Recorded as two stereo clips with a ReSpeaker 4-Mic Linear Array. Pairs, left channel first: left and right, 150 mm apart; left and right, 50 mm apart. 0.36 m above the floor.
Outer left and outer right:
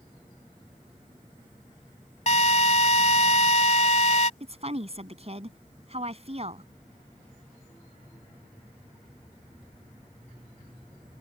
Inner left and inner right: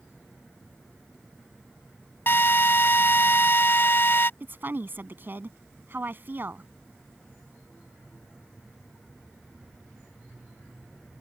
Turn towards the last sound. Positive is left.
turn(degrees=-45)  # may be behind; listen again after turning